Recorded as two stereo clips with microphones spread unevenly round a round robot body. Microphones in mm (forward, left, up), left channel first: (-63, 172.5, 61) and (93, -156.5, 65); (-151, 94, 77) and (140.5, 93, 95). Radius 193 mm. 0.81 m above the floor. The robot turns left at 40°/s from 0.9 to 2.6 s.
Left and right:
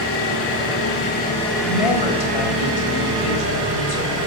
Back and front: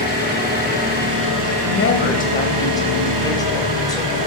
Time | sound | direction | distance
0.0 | an engine running | 60° left | 6.5 m
1.6 | a woman speaking | 140° left | 3.5 m